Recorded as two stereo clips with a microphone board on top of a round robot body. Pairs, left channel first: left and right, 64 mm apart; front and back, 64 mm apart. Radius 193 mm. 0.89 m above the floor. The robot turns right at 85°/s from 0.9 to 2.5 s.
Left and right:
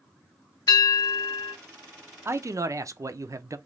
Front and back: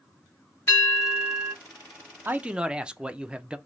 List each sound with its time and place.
0.7 s a bell: 55° left, 1.4 m; by 1.5 s 110° left, 1.4 m
2.2 s a man speaking: 130° right, 0.6 m; by 3.6 s 110° right, 0.6 m